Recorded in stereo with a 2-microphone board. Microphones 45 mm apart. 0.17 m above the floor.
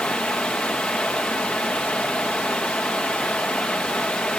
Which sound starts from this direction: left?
Running water, at 0.0 s.